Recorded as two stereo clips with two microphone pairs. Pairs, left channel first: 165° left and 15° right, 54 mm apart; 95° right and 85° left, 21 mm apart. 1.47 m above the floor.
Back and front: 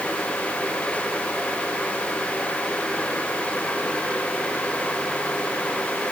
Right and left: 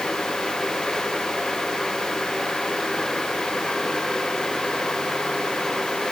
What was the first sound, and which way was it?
Only background noise.